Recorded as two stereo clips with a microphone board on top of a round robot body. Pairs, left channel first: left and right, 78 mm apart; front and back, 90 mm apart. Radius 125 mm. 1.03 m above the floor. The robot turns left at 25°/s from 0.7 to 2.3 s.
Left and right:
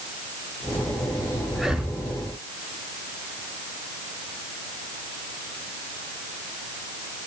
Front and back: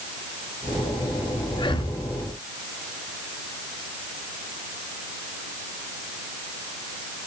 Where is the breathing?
5° right, 1.3 m; by 2.0 s 15° right, 1.3 m.